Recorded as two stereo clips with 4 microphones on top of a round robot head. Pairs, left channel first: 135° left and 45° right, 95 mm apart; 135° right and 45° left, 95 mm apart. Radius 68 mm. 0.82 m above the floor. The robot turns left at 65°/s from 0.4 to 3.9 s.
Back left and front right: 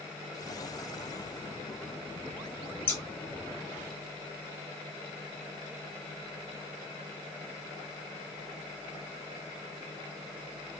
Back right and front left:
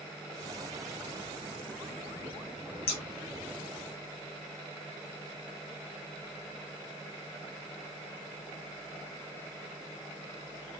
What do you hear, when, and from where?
2.9 s scissors: 155° right, 0.8 m; by 3.0 s 165° right, 0.8 m